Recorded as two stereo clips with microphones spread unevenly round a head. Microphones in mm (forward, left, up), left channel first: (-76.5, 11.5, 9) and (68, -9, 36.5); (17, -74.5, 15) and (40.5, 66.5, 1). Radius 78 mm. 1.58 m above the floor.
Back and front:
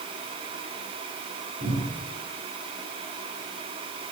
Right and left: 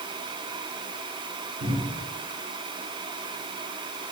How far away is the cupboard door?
About 3.5 m.